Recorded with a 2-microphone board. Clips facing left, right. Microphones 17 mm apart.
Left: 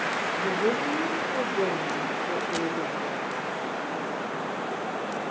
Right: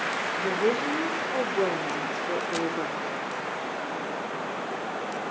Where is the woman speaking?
30° right (ahead or behind), 2.0 m; by 3.0 s 45° right (ahead or behind), 1.1 m.